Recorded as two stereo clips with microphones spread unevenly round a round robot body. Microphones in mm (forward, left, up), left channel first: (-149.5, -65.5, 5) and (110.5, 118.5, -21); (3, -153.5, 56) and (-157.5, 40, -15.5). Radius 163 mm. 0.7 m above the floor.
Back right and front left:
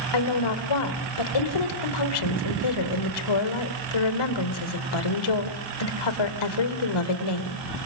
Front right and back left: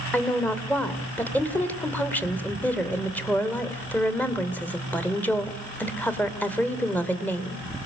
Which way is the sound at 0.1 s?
140° right.